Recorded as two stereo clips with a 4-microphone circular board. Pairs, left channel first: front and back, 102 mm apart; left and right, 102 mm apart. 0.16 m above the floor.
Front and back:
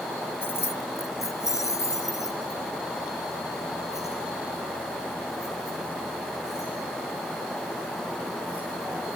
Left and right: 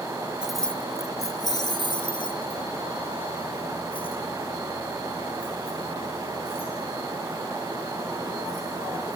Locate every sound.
0.4 s keys jangling: 30° right, 0.7 m; by 9.2 s 60° left, 10 m